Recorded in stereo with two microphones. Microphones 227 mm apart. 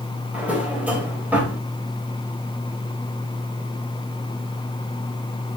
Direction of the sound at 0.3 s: 5° right (ahead or behind).